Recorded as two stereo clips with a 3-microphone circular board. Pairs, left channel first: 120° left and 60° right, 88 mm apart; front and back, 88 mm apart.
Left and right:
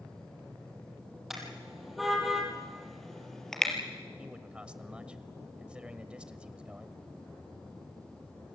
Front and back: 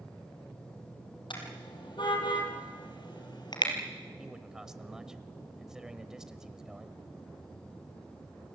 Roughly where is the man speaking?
Right.